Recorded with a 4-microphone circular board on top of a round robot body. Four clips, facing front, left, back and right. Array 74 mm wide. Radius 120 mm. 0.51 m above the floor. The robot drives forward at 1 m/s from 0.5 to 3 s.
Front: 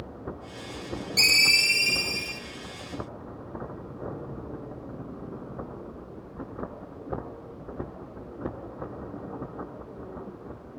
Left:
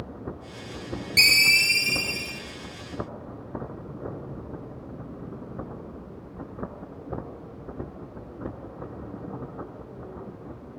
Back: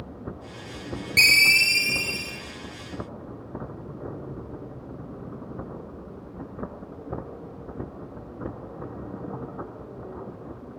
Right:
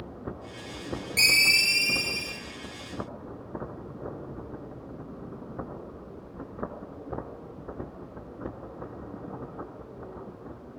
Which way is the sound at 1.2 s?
170° left.